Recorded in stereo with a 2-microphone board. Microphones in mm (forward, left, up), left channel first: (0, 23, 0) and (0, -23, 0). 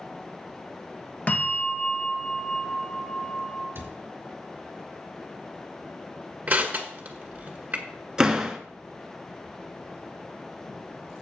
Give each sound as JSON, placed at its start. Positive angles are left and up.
{"t": 1.3, "sound": "a bell", "side_deg": 35, "distance_m": 1.3}
{"t": 3.8, "sound": "a cupboard door", "side_deg": -50, "distance_m": 3.0}
{"t": 6.5, "sound": "crushing", "side_deg": -30, "distance_m": 1.8}
{"t": 8.2, "sound": "a door slam", "side_deg": -10, "distance_m": 1.2}